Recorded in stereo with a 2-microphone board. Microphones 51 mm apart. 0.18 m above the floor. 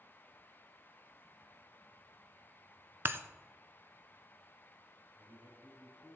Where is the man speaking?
60° right (ahead or behind), 5 m.